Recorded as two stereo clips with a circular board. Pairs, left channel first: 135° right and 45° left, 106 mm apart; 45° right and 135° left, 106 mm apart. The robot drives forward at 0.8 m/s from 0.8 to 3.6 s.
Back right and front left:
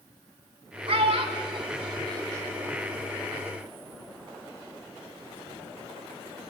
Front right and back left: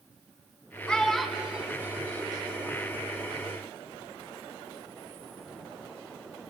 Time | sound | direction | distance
0.9 | a child speaking | 35° left | 1.5 m